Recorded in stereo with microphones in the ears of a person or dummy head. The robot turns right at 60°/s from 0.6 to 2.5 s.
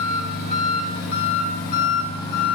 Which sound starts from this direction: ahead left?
An engine running, at 0.0 s.